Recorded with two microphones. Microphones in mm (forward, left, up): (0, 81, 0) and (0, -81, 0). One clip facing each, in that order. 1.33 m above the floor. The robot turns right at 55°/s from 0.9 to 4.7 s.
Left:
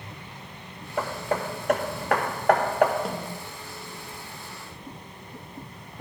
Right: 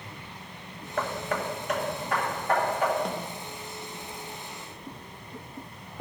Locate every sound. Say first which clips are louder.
1.0 s hammering: left 2 dB; 10° left (ahead or behind), 0.9 m; by 3.0 s 55° left (ahead or behind), 0.9 m
3.0 s a snare drum: left 1 dB; 5° left (ahead or behind), 0.8 m; by 3.3 s 10° right (ahead or behind), 0.8 m